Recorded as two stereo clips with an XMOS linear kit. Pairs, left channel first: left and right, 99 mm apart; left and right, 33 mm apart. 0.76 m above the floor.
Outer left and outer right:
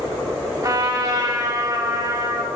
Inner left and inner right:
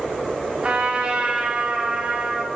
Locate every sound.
0.6 s a trumpet: 40° right (ahead or behind), 1.7 m